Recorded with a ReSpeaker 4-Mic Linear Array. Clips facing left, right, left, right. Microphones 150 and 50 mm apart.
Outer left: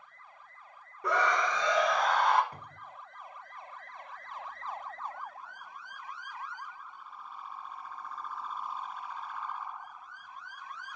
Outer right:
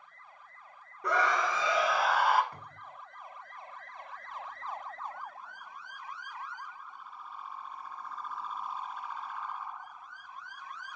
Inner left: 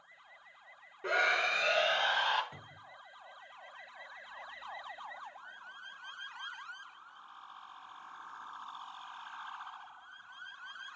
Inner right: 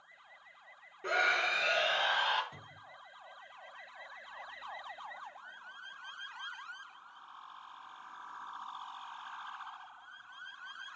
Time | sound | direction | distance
1.0 | a scream | centre (ahead or behind) | 0.8 m
2.5 | a cupboard door | 15° left (ahead or behind) | 2.0 m